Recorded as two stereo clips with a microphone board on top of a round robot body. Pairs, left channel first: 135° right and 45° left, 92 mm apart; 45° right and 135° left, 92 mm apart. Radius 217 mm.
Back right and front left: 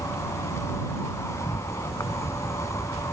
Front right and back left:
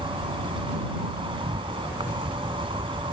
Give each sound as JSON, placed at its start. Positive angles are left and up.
{"t": 0.0, "sound": "an insect", "azimuth_deg": 165}